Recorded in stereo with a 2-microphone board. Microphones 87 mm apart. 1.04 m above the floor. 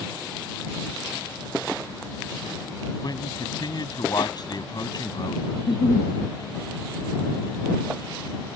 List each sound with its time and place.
3.0 s a man speaking: 50° left (ahead or behind)
5.5 s a giggle: 75° left (ahead or behind)